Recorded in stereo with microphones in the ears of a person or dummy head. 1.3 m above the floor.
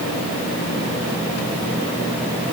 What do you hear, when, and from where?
Only background noise.